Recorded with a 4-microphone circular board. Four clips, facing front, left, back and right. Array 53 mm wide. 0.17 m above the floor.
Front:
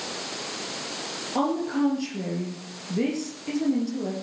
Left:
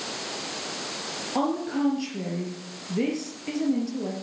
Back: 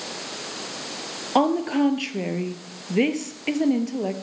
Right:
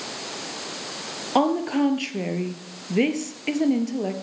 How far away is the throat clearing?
I don't hear throat clearing.